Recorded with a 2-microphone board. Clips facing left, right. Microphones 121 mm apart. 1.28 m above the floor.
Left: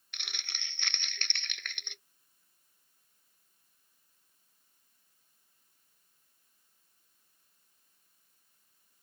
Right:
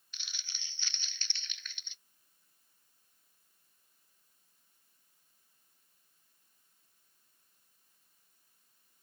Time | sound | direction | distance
0.1 | crumpling | 65° left (ahead or behind) | ?